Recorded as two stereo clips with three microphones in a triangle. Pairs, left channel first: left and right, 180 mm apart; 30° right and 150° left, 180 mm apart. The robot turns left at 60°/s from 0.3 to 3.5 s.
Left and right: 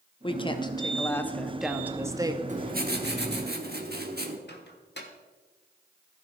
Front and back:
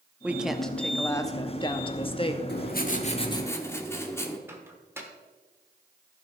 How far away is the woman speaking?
About 0.7 m.